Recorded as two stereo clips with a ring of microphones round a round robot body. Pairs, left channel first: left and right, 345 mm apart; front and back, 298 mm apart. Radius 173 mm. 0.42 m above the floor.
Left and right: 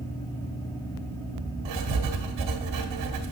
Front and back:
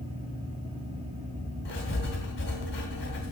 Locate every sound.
1.6 s writing: 60° right, 1.9 m